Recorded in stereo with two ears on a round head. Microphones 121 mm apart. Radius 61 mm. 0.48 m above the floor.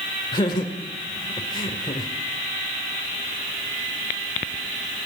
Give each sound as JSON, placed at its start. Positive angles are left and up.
{"t": 0.3, "sound": "laughter", "side_deg": 30, "distance_m": 1.8}